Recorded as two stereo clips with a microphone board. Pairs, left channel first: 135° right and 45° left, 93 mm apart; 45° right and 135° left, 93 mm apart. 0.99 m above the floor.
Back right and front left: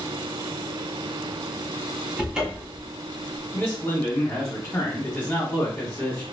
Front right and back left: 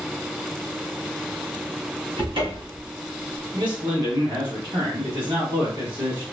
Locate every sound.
2.2 s a cupboard door: 125° left, 0.9 m
3.5 s a man speaking: 165° left, 1.4 m